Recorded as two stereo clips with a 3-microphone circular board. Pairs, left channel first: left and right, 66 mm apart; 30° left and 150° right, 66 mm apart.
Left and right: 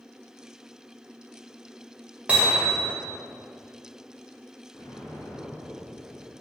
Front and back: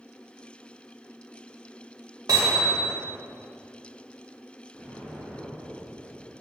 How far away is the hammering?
About 1.9 m.